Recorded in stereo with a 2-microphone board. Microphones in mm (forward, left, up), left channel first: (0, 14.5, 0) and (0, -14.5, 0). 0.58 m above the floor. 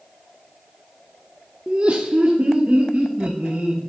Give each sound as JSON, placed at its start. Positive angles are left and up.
{"t": 1.7, "sound": "laughter", "side_deg": -30, "distance_m": 0.6}